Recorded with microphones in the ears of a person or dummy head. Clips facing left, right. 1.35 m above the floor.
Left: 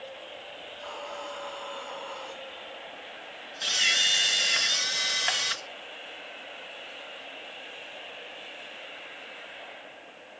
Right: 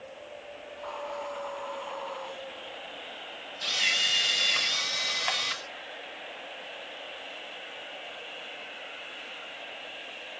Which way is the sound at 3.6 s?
20° left (ahead or behind).